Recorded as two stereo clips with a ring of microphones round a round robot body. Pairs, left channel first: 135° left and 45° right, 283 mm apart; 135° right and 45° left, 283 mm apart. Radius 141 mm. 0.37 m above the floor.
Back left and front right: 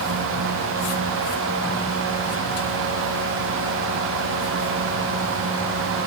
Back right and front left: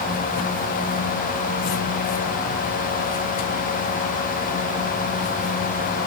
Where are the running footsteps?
No running footsteps in this recording.